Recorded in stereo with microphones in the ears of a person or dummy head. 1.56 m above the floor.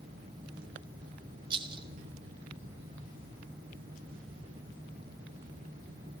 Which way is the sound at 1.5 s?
30° right (ahead or behind).